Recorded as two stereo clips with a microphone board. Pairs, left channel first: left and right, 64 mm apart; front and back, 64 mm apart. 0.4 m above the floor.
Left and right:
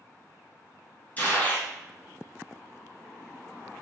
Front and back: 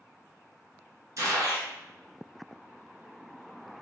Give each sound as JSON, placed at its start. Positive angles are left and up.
{"t": 1.2, "sound": "a gunshot", "azimuth_deg": 150, "distance_m": 0.8}